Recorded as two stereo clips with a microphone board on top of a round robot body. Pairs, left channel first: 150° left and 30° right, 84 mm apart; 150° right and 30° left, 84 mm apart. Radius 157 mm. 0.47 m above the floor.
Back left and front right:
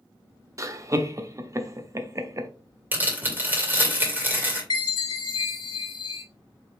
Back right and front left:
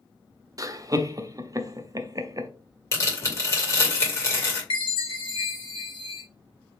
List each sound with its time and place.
0.6 s laughter: 5° left, 0.9 m
2.9 s tearing paper: 95° right, 2.5 m
4.7 s a chime: 175° right, 0.8 m